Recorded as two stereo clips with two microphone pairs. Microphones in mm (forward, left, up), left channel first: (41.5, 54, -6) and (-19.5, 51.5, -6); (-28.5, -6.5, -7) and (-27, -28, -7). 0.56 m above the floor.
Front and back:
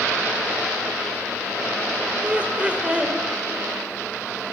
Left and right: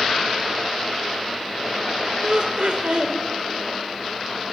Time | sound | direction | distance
2.2 | laughter | 115° right | 2.5 m